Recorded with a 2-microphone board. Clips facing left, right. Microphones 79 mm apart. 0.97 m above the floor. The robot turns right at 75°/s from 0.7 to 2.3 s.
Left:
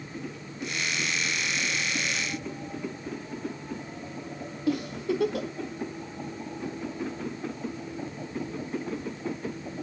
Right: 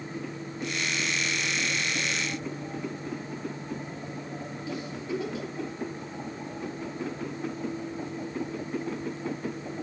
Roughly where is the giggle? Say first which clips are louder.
Left 7 dB; left.